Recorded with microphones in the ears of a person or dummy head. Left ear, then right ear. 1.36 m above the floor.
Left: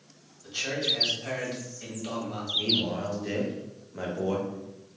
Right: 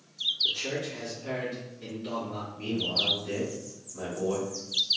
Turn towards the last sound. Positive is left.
turn(degrees=55)  # may be behind; listen again after turning